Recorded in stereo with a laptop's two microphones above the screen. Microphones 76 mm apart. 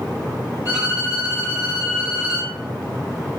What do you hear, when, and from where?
0.7 s a violin: 45° left (ahead or behind), 1.7 m